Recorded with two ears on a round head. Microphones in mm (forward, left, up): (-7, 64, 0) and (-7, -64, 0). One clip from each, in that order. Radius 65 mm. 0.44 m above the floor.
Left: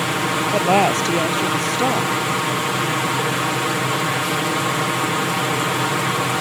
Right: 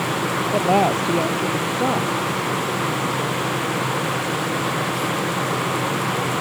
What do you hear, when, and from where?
0.5 s a woman speaking: 85° left